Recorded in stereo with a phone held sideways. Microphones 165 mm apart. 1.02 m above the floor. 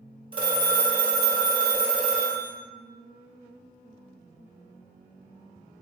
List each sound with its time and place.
0.3 s a phone ringing: 30° right (ahead or behind), 0.8 m